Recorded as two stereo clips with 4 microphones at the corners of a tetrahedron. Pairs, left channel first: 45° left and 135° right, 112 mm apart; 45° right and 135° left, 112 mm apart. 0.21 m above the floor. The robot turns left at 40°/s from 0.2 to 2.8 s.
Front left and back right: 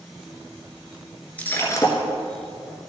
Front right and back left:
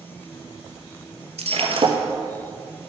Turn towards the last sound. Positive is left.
turn(degrees=65)